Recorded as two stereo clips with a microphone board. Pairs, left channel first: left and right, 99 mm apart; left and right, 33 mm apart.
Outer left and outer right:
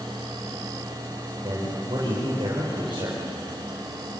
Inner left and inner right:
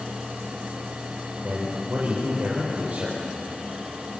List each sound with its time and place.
1.4 s a man speaking: 55° right (ahead or behind), 5.5 m